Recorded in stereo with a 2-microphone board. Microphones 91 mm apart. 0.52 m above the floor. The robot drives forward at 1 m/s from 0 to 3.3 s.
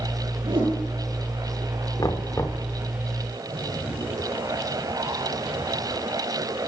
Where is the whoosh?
65° right (ahead or behind), 7.5 m; by 0.8 s 60° right (ahead or behind), 8 m.